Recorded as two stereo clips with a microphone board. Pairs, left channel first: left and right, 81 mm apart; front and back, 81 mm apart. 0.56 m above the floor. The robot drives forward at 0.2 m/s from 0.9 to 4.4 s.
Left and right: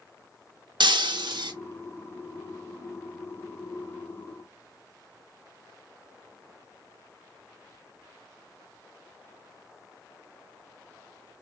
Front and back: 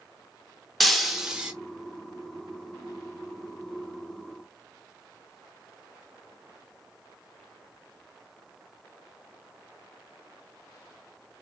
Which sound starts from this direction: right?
Breaking glass, at 0.8 s.